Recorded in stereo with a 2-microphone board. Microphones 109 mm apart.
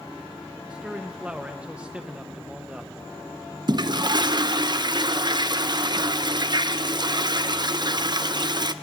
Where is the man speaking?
10° right (ahead or behind), 1.0 m.